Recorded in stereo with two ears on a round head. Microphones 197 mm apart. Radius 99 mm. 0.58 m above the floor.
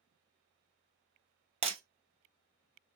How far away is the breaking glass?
About 1.0 m.